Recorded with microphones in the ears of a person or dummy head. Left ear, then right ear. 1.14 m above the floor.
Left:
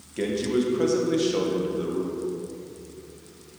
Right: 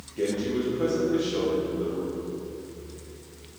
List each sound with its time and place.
0.2 s a man speaking: 40° left (ahead or behind), 1.0 m